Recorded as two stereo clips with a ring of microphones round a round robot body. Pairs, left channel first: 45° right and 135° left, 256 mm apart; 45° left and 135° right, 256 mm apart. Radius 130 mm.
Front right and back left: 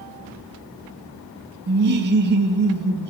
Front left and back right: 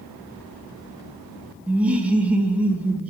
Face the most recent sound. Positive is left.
turn(degrees=145)